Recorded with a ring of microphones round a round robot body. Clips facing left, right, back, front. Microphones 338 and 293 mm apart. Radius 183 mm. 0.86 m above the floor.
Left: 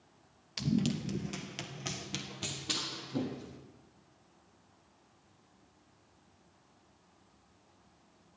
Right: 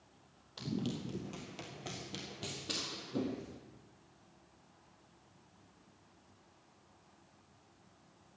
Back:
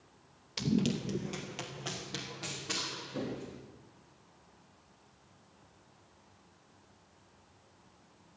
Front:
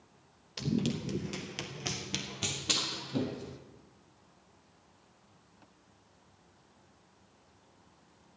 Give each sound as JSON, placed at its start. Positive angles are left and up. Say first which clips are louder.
{"t": 0.6, "sound": "running footsteps", "louder": "left 7 dB, back 1 dB", "azimuth_deg": 100, "distance_m": 1.0}